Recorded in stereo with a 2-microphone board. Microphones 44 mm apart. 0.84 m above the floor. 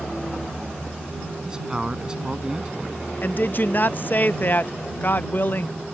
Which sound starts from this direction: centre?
A man speaking, at 1.4 s.